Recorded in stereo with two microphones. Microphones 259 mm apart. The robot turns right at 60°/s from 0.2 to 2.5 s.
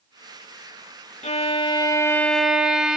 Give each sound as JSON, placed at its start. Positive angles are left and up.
{"t": 1.2, "sound": "a violin", "side_deg": 25, "distance_m": 0.9}